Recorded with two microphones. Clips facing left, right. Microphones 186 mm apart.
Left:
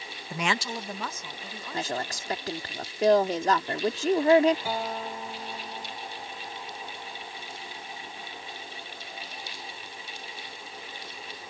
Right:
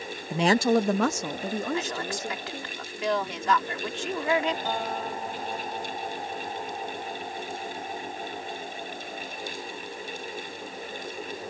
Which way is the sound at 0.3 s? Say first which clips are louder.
Right 10 dB; 20° right (ahead or behind).